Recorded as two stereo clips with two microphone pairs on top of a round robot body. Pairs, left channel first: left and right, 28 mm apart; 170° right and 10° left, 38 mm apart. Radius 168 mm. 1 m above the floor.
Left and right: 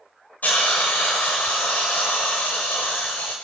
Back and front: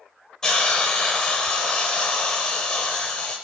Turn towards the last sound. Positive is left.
turn(degrees=110)